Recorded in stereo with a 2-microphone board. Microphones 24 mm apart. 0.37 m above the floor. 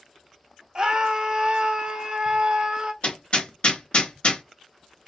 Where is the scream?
35° right (ahead or behind), 1.3 m.